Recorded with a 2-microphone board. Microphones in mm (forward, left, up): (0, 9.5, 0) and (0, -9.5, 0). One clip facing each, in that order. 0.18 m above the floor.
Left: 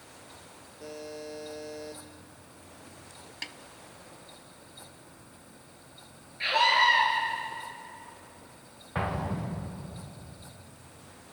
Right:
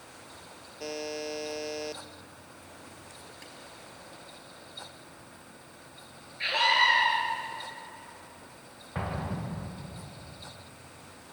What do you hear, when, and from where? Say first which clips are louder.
0.8 s a buzzer: right 5 dB; 60° right (ahead or behind), 1.2 m
3.4 s a snare drum: left 13 dB; 65° left (ahead or behind), 1.0 m
6.4 s a scream: left 1 dB; centre (ahead or behind), 3.5 m
8.9 s an explosion: left 3 dB; 20° left (ahead or behind), 4.5 m